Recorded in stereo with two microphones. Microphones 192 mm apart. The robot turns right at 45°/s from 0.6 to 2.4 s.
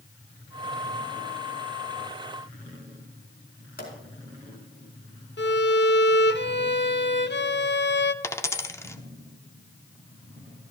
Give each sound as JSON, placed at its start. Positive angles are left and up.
{"t": 3.8, "sound": "a pop", "side_deg": 55, "distance_m": 4.5}
{"t": 5.4, "sound": "a violin", "side_deg": 65, "distance_m": 0.6}
{"t": 8.2, "sound": "a dropped coin", "side_deg": 15, "distance_m": 0.7}